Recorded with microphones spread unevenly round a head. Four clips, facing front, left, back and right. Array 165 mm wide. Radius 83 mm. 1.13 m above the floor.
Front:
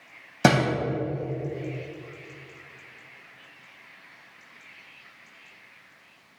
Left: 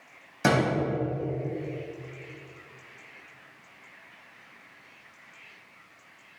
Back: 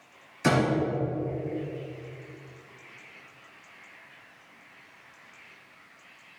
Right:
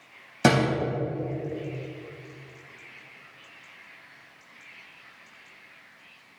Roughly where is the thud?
Ahead.